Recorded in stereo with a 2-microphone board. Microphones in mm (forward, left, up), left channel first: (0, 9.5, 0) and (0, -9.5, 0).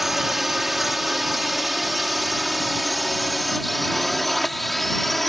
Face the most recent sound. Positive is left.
turn(degrees=5)  # may be behind; listen again after turning